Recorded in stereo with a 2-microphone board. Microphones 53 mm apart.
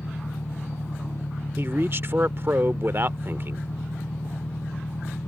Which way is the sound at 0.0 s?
80° left.